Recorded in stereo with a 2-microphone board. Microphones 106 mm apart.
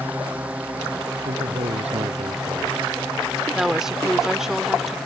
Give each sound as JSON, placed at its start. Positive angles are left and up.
{"t": 0.0, "sound": "a drone", "side_deg": -15}
{"t": 1.2, "sound": "a man speaking", "side_deg": -75}
{"t": 3.5, "sound": "a woman speaking", "side_deg": -5}